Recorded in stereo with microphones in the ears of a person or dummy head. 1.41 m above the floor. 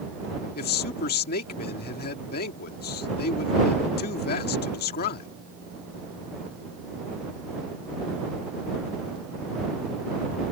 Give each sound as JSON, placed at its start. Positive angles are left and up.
{"t": 0.6, "sound": "a man speaking", "side_deg": 50}